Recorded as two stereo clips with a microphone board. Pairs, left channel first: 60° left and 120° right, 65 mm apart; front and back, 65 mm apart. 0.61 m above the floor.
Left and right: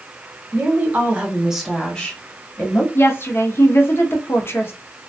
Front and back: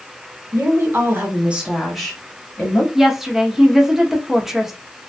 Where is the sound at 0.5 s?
160° right, 1.2 m; by 2.9 s 45° left, 1.0 m.